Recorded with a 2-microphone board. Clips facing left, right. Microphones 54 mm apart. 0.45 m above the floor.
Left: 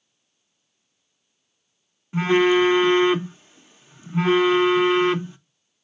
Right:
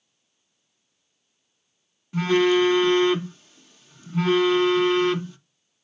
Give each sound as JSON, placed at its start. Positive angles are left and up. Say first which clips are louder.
{"t": 2.1, "sound": "a phone buzzing", "louder": "left 2 dB", "side_deg": 25, "distance_m": 0.6}